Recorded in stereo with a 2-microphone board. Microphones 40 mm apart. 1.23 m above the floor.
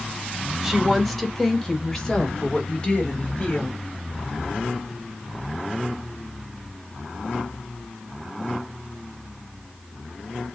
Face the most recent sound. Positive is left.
turn(degrees=35)  # may be behind; listen again after turning